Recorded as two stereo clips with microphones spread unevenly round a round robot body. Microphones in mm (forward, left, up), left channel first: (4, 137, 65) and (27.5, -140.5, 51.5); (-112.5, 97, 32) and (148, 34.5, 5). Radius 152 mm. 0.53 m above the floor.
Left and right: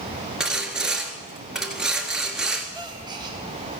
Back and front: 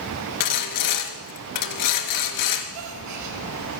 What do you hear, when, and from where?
0.4 s sawing: 175° right, 1.5 m
2.7 s a gasp: 10° right, 2.5 m